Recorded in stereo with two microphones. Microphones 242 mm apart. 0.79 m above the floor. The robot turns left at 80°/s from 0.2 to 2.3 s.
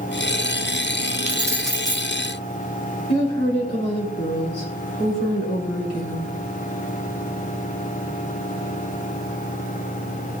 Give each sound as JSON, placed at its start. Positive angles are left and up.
{"t": 1.3, "sound": "keys jangling", "azimuth_deg": -150, "distance_m": 1.0}
{"t": 3.1, "sound": "a woman speaking", "side_deg": 85, "distance_m": 4.5}